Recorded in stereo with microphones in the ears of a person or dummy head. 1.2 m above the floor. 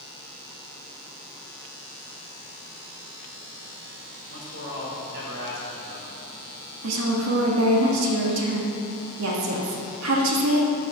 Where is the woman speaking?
75° right (ahead or behind), 1.7 m.